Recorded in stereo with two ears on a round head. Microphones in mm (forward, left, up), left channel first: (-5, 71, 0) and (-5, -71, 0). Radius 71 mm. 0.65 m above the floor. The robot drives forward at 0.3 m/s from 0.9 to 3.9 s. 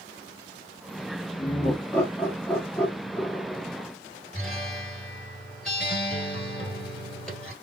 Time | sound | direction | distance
1.4 | laughter | 15° left (ahead or behind) | 1.0 m
4.3 | a guitar | 5° left (ahead or behind) | 1.9 m